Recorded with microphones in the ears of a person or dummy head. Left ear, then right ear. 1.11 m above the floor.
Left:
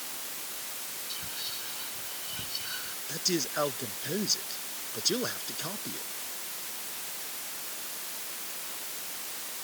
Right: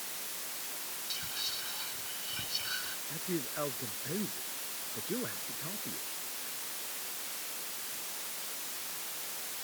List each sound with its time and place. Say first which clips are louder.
1.1 s whispering: right 1 dB; 15° right (ahead or behind)
3.1 s a man speaking: left 11 dB; 85° left